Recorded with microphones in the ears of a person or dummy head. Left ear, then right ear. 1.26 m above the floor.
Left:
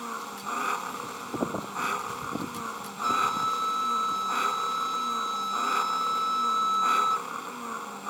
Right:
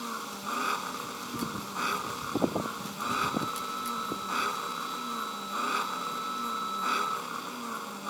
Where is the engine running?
25° left (ahead or behind).